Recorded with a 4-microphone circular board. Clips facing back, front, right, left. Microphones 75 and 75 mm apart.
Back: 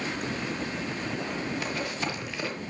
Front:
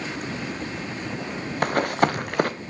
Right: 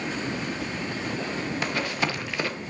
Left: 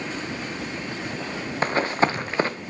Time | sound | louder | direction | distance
1.6 | running footsteps | front 10 dB, left 9 dB | 35° left | 1.3 m